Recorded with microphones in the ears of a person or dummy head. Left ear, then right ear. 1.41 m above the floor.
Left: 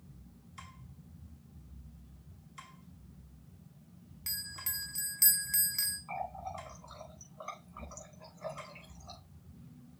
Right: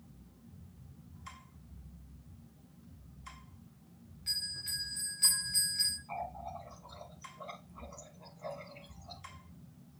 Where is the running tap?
70° left (ahead or behind), 4.5 m.